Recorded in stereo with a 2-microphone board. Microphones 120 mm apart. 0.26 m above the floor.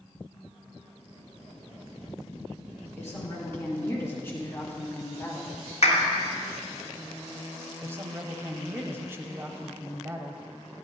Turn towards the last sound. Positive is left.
turn(degrees=-20)  # may be behind; listen again after turning